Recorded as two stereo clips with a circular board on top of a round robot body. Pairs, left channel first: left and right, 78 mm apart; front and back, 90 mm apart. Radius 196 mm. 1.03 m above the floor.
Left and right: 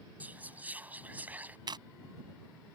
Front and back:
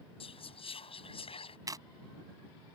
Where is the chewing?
125° right.